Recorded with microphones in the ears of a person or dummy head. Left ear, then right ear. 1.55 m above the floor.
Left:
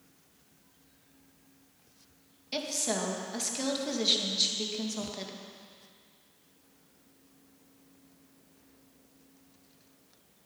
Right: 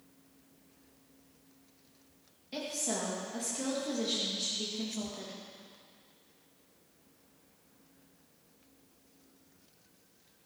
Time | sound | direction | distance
2.5 | a woman speaking | 35° left (ahead or behind) | 2 m